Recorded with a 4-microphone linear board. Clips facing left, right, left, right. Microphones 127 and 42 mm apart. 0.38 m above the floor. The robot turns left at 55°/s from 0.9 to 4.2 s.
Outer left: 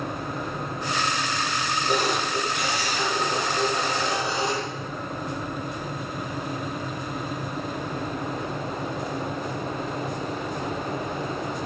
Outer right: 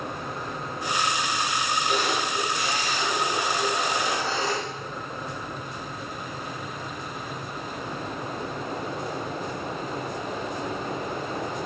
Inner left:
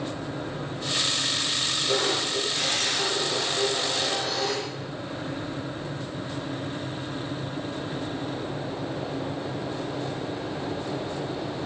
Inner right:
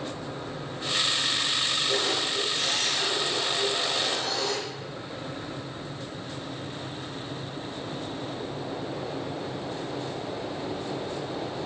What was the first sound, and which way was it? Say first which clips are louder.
A camera shutter: outer left 4 dB, inner left 2 dB; 145° left.